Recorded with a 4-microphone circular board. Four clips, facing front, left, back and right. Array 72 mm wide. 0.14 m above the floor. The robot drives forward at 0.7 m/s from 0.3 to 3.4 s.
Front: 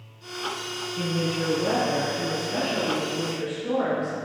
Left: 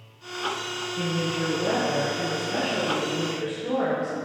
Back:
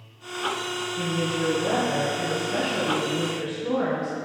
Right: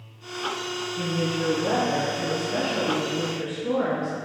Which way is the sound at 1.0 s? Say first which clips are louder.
Even, even; 15° left.